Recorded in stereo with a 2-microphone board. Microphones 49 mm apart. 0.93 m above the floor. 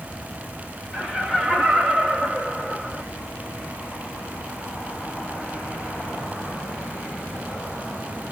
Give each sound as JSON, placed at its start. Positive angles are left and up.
{"t": 0.9, "sound": "laughter", "side_deg": -5, "distance_m": 2.0}